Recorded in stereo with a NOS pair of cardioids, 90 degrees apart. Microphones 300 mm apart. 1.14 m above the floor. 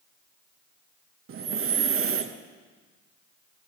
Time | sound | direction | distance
1.3 | breathing | 45° right | 0.9 m